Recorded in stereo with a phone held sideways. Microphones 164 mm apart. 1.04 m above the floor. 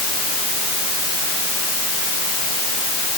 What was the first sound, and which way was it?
Only background noise.